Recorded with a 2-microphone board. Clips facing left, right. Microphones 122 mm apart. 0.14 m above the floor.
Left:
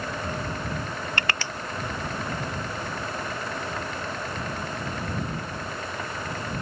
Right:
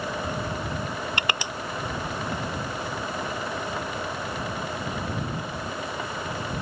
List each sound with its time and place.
1.2 s crushing: 15° right (ahead or behind)